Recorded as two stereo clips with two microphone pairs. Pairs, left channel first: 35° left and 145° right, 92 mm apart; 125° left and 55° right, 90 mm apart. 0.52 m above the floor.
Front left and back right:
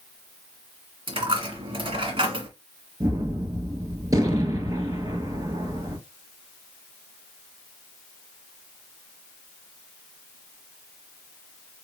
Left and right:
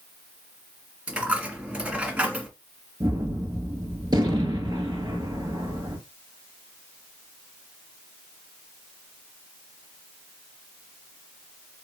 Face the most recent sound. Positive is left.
turn(degrees=-95)